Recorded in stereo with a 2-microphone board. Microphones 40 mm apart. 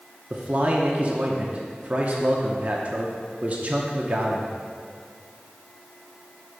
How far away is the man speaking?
About 0.7 m.